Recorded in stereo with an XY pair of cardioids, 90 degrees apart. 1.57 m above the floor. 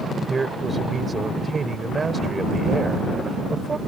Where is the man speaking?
35° right.